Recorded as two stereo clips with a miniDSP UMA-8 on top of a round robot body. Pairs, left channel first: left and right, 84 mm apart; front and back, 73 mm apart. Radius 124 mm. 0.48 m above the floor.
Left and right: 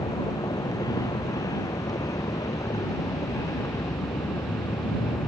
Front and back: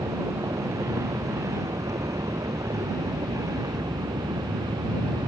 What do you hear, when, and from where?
0.0 s a vehicle: 130° left; by 5.3 s 145° left